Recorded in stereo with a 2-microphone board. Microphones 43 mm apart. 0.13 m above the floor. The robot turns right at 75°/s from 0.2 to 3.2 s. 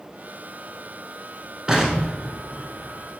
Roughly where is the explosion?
Centre.